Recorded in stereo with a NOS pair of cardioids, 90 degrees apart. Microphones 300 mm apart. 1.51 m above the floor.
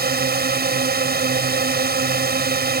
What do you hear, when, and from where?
0.0 s a drone: 30° right